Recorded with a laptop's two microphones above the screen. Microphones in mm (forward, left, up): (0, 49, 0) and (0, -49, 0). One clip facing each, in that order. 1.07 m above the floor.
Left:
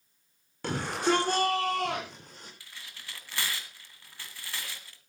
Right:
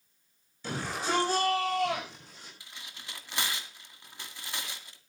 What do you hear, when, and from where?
0.6 s a shout: 65° left (ahead or behind), 4 m; by 2.5 s 50° left (ahead or behind), 4 m
2.6 s tearing paper: 20° right (ahead or behind), 2 m